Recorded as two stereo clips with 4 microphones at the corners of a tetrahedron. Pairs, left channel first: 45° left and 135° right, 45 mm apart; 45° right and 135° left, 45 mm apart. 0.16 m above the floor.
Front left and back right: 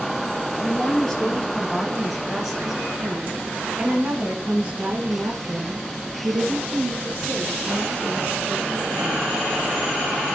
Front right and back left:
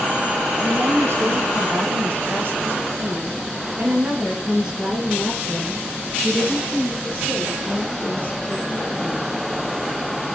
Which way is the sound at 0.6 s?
120° left.